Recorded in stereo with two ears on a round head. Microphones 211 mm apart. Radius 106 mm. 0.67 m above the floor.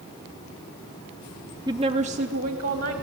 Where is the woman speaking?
15° right (ahead or behind), 0.6 m; by 2.9 s 40° right (ahead or behind), 1.8 m.